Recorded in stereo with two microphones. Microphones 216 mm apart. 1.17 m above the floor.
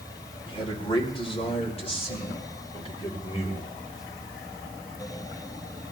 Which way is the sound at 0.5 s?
25° left (ahead or behind).